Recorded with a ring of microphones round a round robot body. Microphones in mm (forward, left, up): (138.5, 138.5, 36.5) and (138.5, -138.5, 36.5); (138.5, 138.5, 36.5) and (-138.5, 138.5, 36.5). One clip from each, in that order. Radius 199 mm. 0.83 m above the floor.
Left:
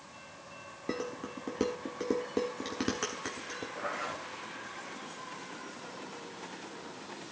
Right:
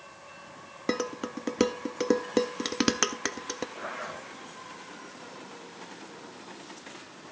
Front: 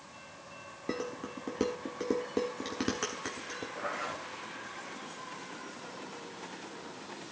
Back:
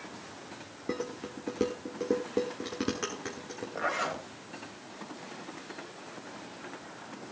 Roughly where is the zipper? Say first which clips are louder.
Even, back 7 dB; behind.